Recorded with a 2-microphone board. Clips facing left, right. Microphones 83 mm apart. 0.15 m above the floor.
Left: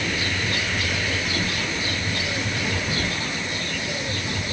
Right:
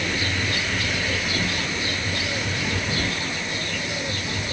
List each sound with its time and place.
Only background noise.